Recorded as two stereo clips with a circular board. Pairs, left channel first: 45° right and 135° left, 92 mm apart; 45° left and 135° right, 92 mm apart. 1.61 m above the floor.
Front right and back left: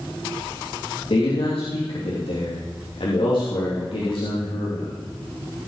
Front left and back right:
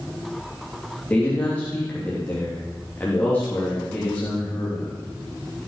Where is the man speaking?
30° right, 3 m.